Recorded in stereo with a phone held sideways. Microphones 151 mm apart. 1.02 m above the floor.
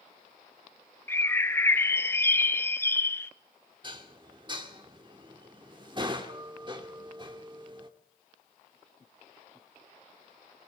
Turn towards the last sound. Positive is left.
turn(degrees=-30)  # may be behind; listen again after turning